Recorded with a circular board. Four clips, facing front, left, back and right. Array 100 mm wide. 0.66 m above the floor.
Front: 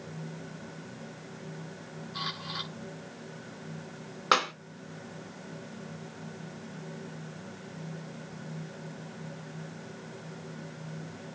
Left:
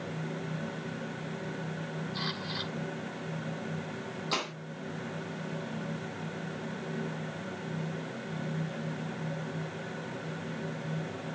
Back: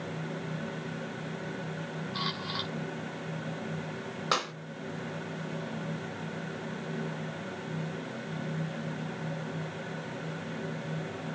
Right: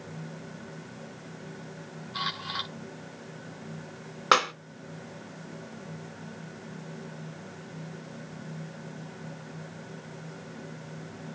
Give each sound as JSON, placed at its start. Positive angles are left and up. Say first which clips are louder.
{"t": 2.1, "sound": "a camera shutter", "louder": "right 2 dB, back 1 dB", "azimuth_deg": -115, "distance_m": 7.0}
{"t": 4.3, "sound": "a clap", "louder": "right 13 dB, front 5 dB", "azimuth_deg": -75, "distance_m": 3.0}